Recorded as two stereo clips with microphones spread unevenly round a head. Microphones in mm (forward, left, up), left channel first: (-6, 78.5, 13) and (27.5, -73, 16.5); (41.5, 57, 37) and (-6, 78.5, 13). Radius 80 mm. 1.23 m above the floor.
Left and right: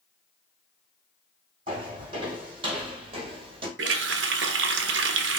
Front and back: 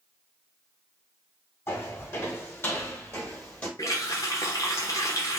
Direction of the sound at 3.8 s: 75° right.